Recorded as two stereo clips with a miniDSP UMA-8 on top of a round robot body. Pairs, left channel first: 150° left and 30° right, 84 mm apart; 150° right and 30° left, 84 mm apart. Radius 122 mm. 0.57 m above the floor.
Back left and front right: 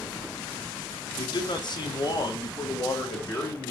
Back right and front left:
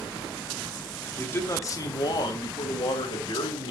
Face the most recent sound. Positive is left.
turn(degrees=-155)